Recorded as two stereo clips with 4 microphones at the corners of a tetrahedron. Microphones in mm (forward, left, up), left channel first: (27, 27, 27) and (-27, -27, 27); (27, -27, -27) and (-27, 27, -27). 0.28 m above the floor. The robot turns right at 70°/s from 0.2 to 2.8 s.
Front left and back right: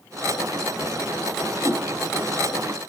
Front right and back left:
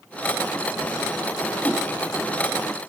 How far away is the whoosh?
About 1.3 m.